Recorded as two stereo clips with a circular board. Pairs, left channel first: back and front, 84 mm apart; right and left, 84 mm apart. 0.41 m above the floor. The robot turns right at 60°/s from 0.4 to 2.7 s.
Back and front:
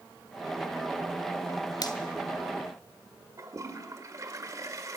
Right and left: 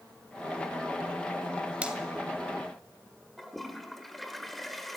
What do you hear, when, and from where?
1.8 s a finger snap: 165° left, 2.5 m; by 2.0 s 170° left, 2.5 m
3.4 s a toilet flushing: 5° right, 1.7 m